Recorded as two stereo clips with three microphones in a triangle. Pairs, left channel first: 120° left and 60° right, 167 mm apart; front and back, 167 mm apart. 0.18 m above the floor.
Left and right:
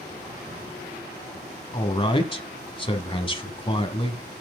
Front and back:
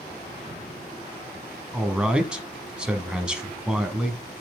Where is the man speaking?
100° left, 1.3 m.